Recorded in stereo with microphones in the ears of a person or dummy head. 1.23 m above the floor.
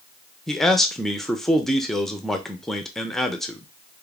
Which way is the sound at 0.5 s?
5° left (ahead or behind).